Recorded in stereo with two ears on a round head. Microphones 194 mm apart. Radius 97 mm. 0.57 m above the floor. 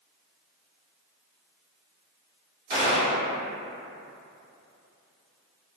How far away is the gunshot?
About 0.9 m.